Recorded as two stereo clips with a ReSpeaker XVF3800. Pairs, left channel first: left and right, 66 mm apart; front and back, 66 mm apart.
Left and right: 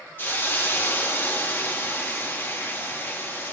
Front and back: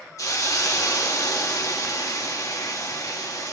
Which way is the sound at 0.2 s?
30° left.